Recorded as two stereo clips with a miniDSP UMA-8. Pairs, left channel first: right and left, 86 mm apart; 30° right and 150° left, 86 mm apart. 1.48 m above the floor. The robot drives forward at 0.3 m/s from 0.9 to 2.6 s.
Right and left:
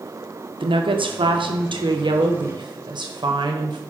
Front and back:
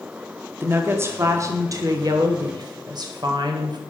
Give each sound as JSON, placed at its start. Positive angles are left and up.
{"t": 0.6, "sound": "a woman speaking", "azimuth_deg": 85, "distance_m": 1.0}